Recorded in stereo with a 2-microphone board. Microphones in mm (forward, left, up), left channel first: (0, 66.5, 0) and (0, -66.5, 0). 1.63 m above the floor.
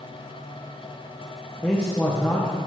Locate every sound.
1.6 s a man speaking: 10° left (ahead or behind), 1.7 m